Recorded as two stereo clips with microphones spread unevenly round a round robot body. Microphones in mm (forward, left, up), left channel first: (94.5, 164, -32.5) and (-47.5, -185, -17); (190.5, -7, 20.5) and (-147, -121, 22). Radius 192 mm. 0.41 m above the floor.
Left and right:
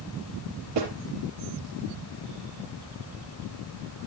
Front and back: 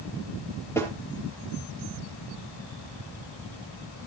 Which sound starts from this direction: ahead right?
A snare drum, at 0.8 s.